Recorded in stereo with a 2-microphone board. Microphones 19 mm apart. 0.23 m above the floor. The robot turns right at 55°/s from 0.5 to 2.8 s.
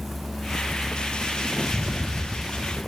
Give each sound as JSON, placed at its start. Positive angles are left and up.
{"t": 1.6, "sound": "a rattle", "azimuth_deg": -130, "distance_m": 0.7}